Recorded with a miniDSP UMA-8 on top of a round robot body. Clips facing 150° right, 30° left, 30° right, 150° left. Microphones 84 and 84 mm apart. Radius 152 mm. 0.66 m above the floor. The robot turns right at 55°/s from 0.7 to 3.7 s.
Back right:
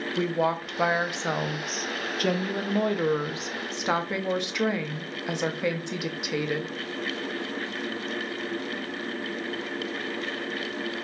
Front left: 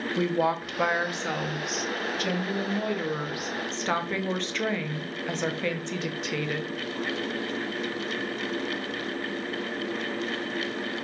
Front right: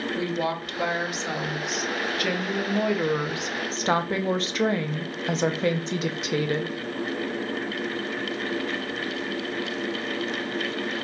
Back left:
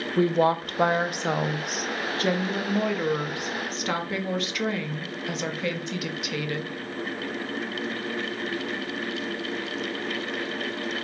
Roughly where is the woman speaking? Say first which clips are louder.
Even, back left 9 dB; behind left.